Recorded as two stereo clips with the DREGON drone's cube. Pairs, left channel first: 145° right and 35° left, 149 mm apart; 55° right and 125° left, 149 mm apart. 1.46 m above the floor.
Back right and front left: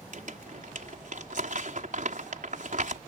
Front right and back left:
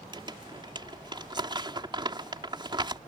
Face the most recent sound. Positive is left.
turn(degrees=65)